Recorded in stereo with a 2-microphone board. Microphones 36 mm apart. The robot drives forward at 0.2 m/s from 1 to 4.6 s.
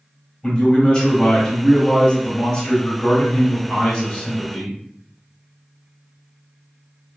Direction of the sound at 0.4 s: 20° left (ahead or behind).